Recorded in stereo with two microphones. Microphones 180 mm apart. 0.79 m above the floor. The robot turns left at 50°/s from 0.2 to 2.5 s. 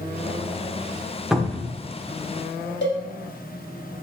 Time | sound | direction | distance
1.3 | a cupboard door | 5° right (ahead or behind) | 0.9 m
2.8 | a cowbell | 85° left | 1.3 m